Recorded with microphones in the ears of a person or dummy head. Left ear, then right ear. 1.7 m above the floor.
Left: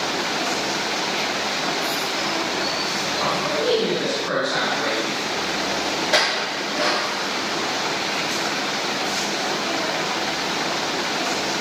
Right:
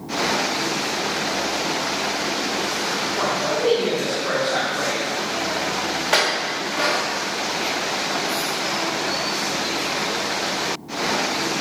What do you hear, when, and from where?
3.2 s a man speaking: 40° right (ahead or behind), 1.9 m
6.1 s a clink: 45° right (ahead or behind), 1.5 m